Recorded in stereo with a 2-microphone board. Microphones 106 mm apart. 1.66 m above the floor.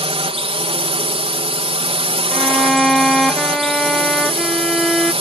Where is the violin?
Centre (ahead or behind).